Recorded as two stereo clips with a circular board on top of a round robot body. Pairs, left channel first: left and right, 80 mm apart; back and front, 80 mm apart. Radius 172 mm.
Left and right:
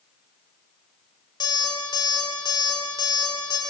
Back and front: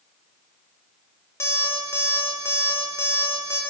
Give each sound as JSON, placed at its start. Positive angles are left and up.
{"t": 1.4, "sound": "an alarm clock", "azimuth_deg": 120, "distance_m": 2.0}